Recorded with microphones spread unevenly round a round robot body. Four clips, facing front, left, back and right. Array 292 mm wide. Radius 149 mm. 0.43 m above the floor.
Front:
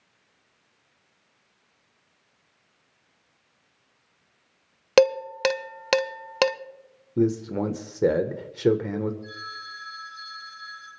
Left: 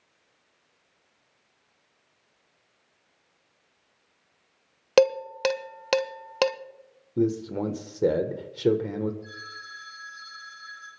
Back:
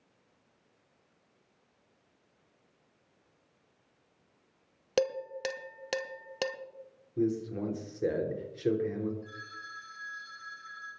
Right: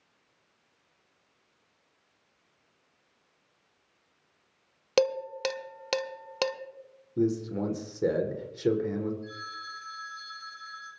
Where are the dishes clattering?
25° left, 0.8 m.